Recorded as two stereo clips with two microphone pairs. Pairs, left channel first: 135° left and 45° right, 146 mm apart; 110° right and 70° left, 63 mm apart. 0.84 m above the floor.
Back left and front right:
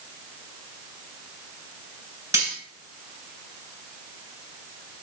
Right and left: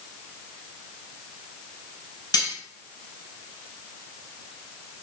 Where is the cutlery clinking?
115° right, 3 m.